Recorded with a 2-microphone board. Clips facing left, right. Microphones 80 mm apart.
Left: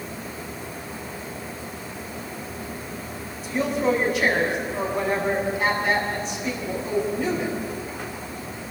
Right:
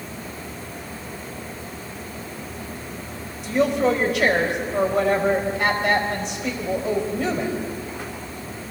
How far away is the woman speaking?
About 4 m.